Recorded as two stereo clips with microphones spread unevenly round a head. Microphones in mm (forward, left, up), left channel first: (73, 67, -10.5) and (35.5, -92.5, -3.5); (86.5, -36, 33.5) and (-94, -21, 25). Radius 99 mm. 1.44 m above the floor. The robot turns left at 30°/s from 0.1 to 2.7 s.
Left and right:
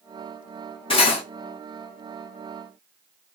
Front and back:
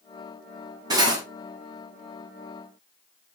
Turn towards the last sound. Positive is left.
turn(degrees=60)